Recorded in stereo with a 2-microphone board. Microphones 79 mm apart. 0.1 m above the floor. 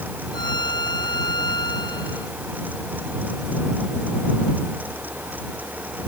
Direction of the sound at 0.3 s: 75° left (ahead or behind).